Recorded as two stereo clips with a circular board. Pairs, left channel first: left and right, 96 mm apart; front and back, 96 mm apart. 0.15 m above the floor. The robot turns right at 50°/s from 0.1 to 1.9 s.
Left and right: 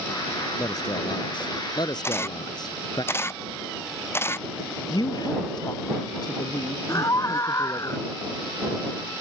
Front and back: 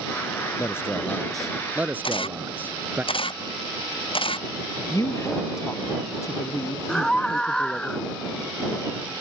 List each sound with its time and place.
0.6 s a man speaking: 50° left; by 3.0 s 115° left
2.0 s a camera shutter: 25° left
4.9 s a woman speaking: 55° left
6.9 s a scream: 75° left